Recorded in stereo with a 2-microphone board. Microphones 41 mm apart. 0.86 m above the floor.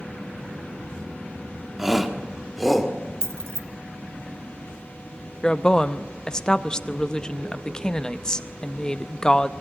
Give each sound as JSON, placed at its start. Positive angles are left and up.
{"t": 1.8, "sound": "a shout", "side_deg": -5, "distance_m": 1.5}
{"t": 3.2, "sound": "keys jangling", "side_deg": -85, "distance_m": 0.8}
{"t": 5.4, "sound": "a woman speaking", "side_deg": 20, "distance_m": 0.7}